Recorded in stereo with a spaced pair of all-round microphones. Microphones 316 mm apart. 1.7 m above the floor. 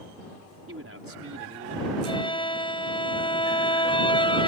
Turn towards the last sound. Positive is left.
turn(degrees=15)  # may be behind; listen again after turning